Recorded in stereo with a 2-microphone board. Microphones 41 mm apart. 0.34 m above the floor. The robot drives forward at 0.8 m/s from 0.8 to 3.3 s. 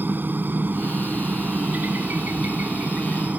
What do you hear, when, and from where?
0.0 s a helicopter: 50° right (ahead or behind); by 3.4 s 40° right (ahead or behind)